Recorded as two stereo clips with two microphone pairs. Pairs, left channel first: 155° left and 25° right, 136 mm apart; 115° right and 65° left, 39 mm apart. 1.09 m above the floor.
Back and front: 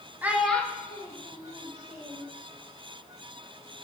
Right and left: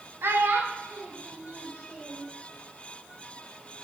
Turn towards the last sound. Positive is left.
turn(degrees=120)